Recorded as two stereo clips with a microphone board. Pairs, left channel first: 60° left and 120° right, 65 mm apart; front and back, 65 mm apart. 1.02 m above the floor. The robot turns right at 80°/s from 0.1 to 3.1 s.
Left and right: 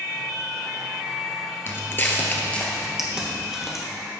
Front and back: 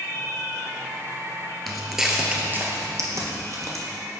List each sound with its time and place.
1.7 s footsteps: 85° left, 1.2 m; by 3.9 s 155° left, 1.9 m